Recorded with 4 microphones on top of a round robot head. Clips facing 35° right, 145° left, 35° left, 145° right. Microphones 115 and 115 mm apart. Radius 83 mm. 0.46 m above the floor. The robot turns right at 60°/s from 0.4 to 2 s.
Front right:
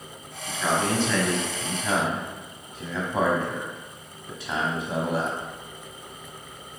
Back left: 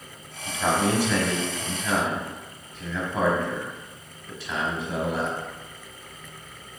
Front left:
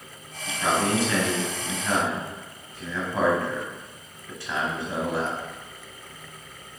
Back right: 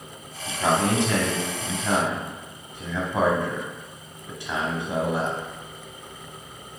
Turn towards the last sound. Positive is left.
turn(degrees=-90)